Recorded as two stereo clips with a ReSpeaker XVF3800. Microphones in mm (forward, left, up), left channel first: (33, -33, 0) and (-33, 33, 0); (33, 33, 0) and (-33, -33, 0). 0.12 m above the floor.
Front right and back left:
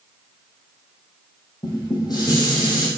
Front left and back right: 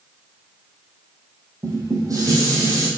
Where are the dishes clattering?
85° right, 3.5 m.